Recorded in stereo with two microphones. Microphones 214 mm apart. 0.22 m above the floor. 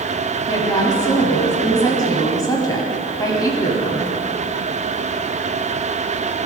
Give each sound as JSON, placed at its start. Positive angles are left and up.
{"t": 0.5, "sound": "a woman speaking", "side_deg": 15, "distance_m": 1.4}